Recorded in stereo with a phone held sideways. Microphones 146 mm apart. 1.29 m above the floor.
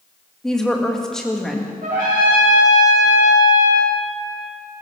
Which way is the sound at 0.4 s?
5° left (ahead or behind).